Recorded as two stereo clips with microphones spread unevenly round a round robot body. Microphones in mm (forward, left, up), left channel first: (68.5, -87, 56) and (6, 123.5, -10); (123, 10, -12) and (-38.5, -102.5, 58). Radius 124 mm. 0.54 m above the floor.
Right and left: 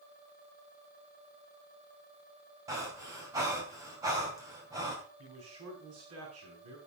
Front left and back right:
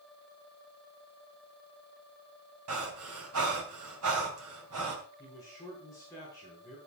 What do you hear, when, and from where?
2.7 s breathing: straight behind, 4 m
5.2 s a man speaking: 110° left, 6 m